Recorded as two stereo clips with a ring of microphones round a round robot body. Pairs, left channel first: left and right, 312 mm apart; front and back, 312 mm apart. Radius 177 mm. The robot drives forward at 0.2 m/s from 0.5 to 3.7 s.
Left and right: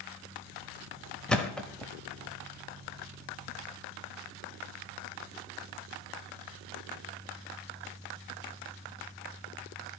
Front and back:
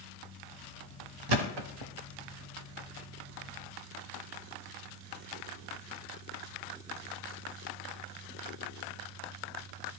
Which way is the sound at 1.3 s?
Straight behind.